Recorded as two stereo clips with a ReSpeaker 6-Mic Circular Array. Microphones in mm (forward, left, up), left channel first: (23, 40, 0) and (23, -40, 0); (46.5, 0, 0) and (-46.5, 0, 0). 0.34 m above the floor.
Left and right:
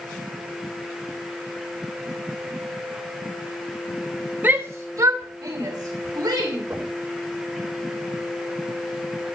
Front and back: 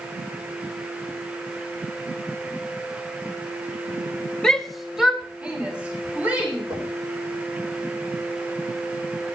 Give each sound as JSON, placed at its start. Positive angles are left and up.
{"t": 4.4, "sound": "a shout", "azimuth_deg": -75, "distance_m": 1.4}
{"t": 6.7, "sound": "knocking", "azimuth_deg": -150, "distance_m": 8.0}